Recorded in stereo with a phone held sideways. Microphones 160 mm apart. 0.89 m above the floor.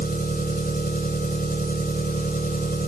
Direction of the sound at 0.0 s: 70° left (ahead or behind).